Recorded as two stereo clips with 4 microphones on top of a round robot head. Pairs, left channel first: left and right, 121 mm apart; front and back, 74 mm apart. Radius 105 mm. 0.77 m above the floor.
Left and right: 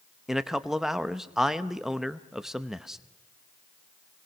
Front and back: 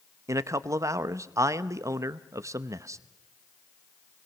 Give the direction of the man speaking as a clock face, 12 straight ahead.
6 o'clock.